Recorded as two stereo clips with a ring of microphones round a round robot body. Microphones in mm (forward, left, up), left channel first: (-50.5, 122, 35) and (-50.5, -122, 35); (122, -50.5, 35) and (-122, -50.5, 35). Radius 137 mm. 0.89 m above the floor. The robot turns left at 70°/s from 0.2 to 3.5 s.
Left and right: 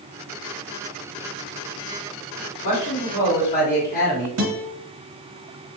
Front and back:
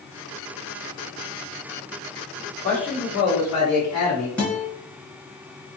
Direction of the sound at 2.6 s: 95° left.